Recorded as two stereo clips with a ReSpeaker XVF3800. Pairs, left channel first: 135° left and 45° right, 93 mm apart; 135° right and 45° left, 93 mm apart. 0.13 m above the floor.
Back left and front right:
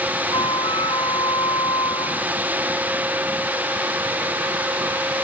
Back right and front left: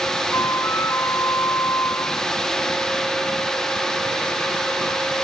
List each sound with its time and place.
0.3 s a flute: 165° left